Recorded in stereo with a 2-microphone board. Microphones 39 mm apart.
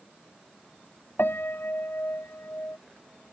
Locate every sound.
1.2 s a piano: 75° left (ahead or behind)